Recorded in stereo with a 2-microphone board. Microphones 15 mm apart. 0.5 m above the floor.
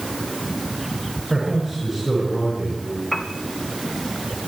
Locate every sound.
1.3 s a man speaking: centre (ahead or behind), 7.5 m
3.1 s a piano: 30° left (ahead or behind), 1.6 m